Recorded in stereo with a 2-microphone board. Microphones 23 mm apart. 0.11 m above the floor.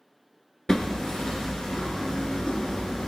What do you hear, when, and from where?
0.7 s hammering: 30° left (ahead or behind), 0.6 m